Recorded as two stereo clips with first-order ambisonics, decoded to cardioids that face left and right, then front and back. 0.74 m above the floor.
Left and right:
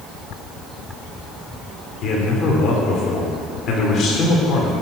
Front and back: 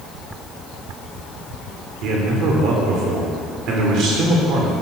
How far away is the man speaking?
About 2.5 m.